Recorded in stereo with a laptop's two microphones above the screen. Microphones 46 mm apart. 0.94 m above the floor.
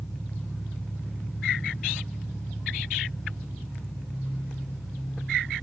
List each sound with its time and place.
0.0 s an engine running: 35° right (ahead or behind), 6.5 m